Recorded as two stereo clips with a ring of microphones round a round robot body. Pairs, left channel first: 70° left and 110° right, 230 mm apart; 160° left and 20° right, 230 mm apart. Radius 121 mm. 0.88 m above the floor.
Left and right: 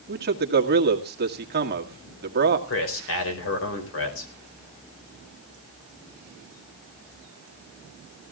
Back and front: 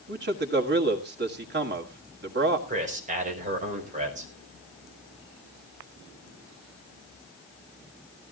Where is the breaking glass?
I don't hear breaking glass.